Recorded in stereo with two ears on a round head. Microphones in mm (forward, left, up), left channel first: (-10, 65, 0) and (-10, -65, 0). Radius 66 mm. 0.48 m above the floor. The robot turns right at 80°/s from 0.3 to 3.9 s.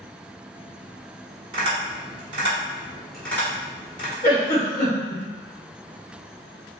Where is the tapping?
35° right (ahead or behind), 1.9 m; by 4.1 s 40° left (ahead or behind), 1.9 m.